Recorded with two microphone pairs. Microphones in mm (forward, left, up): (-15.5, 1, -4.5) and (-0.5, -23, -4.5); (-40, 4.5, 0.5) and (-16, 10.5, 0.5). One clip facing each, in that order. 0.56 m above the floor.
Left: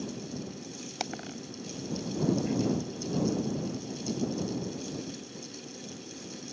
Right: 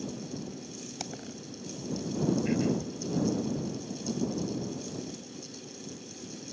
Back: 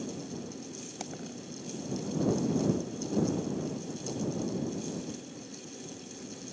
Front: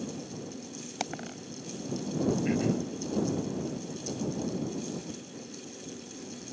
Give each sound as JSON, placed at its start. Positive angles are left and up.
{"t": 1.0, "sound": "a dropped coin", "azimuth_deg": 60}
{"t": 2.5, "sound": "throat clearing", "azimuth_deg": 5}